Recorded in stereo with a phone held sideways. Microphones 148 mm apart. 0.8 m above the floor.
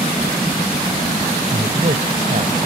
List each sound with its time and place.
1.5 s a man speaking: 50° right (ahead or behind)